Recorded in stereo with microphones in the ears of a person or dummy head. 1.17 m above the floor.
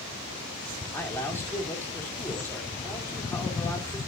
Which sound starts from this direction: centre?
A man speaking, at 0.9 s.